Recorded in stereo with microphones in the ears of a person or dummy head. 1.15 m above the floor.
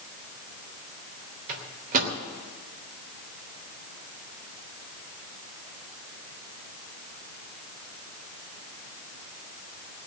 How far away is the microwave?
About 2.5 m.